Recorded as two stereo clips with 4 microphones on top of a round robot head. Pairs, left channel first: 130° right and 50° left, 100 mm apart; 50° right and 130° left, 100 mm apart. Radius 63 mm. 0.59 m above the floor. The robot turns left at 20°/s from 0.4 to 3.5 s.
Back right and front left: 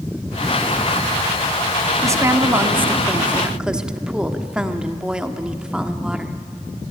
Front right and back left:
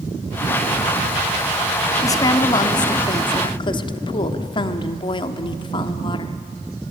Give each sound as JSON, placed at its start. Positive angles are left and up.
{"t": 2.0, "sound": "a woman speaking", "azimuth_deg": 0, "distance_m": 1.3}